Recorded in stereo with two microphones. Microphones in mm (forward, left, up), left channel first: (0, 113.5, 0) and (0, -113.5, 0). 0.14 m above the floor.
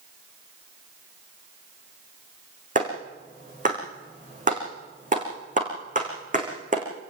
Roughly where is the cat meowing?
I don't hear a cat meowing.